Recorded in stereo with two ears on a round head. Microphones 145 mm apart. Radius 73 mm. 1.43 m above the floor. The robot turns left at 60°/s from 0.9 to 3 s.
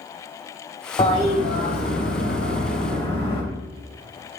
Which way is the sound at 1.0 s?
155° left.